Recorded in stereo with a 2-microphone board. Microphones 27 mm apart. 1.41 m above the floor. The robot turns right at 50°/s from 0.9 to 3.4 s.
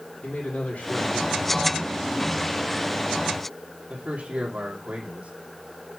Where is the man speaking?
110° left, 2.5 m; by 5.3 s 125° right, 2.5 m.